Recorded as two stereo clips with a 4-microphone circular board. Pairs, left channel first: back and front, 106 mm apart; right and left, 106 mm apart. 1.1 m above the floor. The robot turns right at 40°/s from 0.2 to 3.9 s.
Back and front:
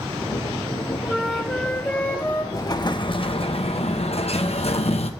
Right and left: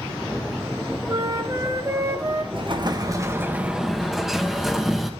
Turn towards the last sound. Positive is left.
turn(degrees=180)